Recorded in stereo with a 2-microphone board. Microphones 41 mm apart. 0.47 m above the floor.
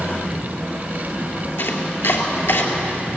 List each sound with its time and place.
1.6 s chopping: 70° left (ahead or behind), 2.5 m